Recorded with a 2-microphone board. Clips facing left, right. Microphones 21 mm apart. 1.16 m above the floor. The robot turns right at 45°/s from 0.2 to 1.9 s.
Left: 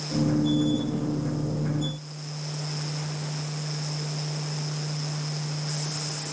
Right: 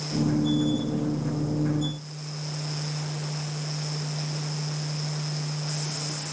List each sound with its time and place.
Only background noise.